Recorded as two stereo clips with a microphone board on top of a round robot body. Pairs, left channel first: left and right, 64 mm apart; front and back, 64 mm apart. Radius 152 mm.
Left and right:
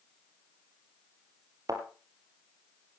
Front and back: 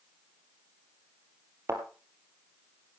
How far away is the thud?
About 2.5 m.